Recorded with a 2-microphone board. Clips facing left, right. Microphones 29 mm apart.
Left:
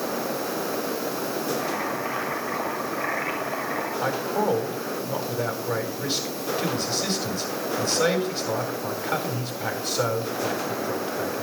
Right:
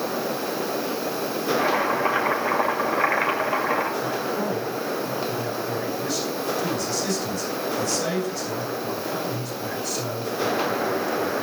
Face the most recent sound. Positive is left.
turn(degrees=40)  # may be behind; listen again after turning